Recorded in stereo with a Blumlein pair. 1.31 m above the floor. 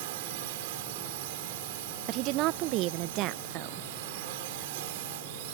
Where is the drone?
50° right.